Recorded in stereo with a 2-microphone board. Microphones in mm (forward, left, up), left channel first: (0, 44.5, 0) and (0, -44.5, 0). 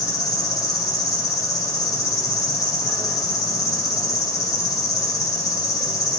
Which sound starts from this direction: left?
An insect, at 0.0 s.